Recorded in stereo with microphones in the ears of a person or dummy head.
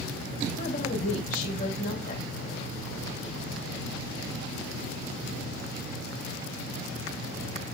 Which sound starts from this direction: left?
A woman speaking, at 0.6 s.